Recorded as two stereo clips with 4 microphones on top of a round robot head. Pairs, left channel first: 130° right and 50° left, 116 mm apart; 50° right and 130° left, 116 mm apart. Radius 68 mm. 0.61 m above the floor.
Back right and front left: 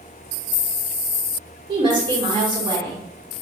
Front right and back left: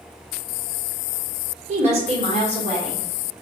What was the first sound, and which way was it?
A woman speaking, 100° left.